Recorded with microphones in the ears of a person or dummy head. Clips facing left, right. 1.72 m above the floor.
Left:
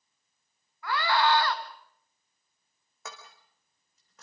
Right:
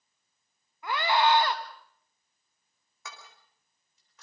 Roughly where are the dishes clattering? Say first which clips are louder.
Left 3 dB; left.